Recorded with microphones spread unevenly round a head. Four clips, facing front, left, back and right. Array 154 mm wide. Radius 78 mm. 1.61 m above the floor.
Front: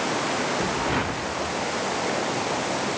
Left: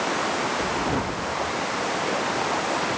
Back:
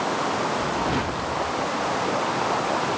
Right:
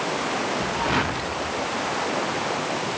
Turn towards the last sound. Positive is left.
No sound to turn to.